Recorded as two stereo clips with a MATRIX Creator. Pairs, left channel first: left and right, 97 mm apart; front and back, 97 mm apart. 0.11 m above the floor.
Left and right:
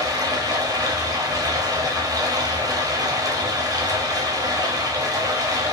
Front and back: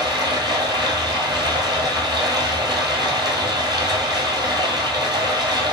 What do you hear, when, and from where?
0.0 s running water: 135° right, 1.4 m